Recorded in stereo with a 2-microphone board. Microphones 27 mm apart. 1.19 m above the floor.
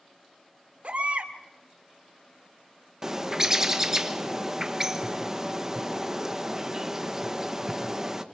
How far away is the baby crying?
About 2.0 m.